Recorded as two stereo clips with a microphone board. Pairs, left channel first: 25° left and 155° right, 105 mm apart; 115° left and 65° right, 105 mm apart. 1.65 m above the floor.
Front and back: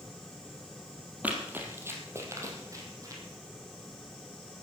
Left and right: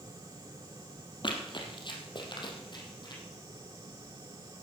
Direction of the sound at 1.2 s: 130° left.